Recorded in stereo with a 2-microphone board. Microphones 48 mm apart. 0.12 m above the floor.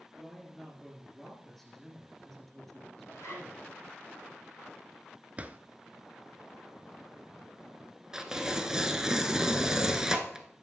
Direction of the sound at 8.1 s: 15° right (ahead or behind).